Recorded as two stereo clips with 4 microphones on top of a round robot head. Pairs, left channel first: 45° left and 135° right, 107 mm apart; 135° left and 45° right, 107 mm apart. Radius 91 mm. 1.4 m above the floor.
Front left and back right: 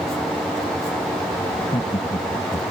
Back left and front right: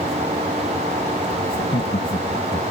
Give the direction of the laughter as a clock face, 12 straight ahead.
8 o'clock.